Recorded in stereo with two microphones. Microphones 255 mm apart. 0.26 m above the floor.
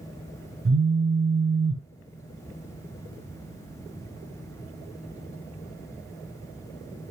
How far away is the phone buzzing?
About 0.9 m.